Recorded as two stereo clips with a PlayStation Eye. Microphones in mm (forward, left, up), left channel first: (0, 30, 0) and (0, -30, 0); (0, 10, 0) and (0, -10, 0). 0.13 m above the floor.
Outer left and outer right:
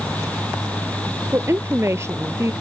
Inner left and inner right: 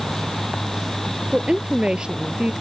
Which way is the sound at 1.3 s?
50° right (ahead or behind).